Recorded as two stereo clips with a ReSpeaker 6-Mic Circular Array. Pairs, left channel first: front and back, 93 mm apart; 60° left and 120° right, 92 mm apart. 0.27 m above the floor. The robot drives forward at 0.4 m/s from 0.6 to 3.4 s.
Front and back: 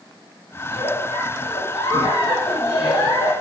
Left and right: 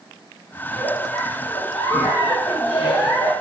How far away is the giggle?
About 6.5 m.